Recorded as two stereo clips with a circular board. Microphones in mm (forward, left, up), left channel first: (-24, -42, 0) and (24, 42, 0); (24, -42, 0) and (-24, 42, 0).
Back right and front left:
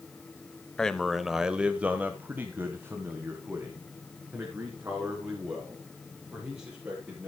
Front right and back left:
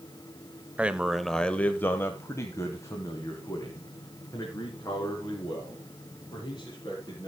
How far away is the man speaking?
About 0.9 m.